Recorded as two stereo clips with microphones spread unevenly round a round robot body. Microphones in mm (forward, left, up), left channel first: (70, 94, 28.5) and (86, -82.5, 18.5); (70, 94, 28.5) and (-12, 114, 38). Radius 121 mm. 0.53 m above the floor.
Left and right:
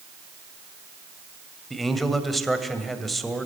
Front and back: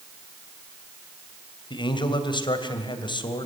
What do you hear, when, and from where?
1.7 s a man speaking: 5° left, 2.5 m